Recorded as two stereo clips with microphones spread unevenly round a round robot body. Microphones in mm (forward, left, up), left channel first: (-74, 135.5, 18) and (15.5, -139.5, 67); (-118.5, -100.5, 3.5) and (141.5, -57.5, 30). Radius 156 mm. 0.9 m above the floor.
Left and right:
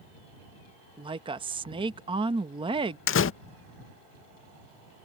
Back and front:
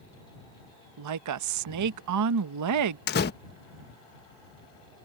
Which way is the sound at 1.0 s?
5° left.